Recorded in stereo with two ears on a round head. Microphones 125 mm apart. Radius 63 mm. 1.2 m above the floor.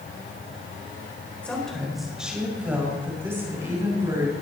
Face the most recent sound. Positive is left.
turn(degrees=-25)  # may be behind; listen again after turning